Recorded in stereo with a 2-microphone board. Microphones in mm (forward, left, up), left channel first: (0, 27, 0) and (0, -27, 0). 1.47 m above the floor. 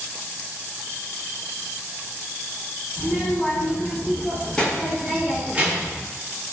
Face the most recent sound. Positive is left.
turn(degrees=-35)  # may be behind; listen again after turning